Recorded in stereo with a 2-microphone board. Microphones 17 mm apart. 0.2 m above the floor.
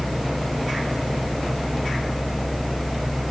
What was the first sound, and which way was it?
Only background noise.